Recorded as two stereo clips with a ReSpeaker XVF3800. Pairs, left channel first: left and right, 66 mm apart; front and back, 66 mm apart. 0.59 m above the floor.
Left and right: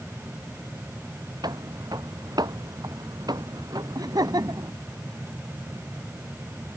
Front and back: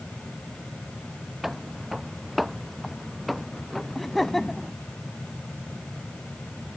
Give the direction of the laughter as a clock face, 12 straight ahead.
3 o'clock.